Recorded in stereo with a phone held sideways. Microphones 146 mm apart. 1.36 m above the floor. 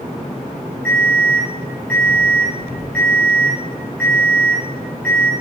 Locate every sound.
0.8 s an alarm: 10° left (ahead or behind), 6 m